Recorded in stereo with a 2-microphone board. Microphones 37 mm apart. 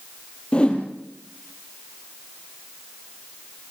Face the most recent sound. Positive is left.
turn(degrees=30)  # may be behind; listen again after turning